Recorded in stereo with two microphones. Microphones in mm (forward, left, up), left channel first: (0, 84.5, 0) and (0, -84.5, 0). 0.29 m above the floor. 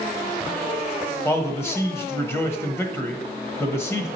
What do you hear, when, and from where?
1.2 s a man speaking: 15° left (ahead or behind), 1.1 m